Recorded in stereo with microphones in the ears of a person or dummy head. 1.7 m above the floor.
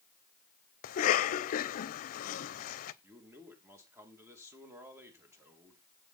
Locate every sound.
0.8 s a cough: 45° left (ahead or behind), 0.9 m
3.0 s a man speaking: 15° right (ahead or behind), 2.5 m